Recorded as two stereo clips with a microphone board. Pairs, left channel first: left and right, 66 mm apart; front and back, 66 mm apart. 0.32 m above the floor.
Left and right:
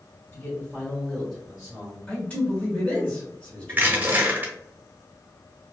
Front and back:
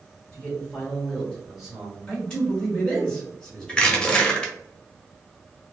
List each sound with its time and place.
0.3 s a man speaking: 60° left, 1.9 m; by 2.0 s 115° right, 1.5 m
2.1 s a man speaking: 55° left, 1.2 m
3.7 s crushing: 60° right, 0.7 m